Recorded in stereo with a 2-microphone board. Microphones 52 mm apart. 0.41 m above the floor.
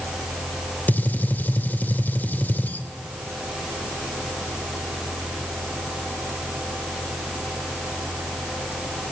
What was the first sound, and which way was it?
A gunshot, 35° left (ahead or behind).